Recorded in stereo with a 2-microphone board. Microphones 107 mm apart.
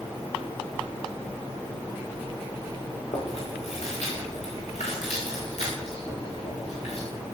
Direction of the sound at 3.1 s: 75° left (ahead or behind).